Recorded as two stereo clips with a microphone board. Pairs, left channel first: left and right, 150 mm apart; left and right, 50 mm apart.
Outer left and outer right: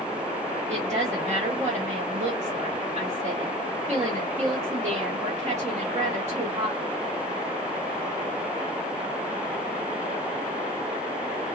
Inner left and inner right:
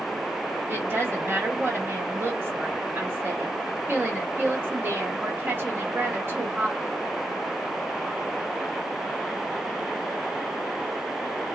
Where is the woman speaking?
45° right (ahead or behind), 1.6 m.